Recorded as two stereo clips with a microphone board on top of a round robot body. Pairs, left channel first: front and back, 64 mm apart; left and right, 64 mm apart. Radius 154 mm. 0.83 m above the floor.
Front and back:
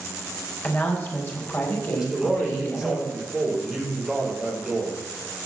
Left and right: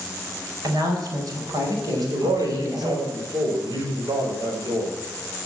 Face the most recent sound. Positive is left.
turn(degrees=-95)